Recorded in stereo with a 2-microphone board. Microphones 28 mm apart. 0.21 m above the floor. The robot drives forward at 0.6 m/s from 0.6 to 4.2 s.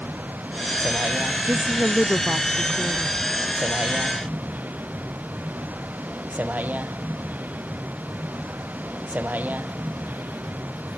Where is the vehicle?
85° right.